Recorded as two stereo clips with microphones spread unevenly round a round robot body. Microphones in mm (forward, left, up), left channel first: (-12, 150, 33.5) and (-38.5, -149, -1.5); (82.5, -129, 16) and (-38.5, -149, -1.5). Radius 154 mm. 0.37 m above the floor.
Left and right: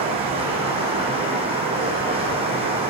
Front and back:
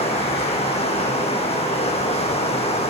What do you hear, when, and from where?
0.0 s running water: 25° right, 6.5 m